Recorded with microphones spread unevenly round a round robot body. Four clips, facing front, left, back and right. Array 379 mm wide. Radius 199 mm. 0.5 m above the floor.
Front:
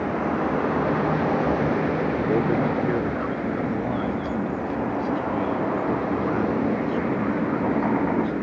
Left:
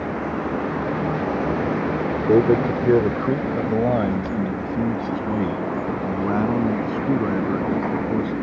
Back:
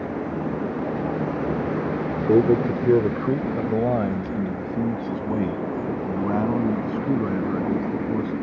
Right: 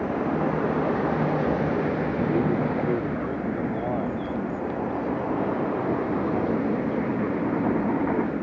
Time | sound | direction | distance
2.3 | a man speaking | 130° left | ?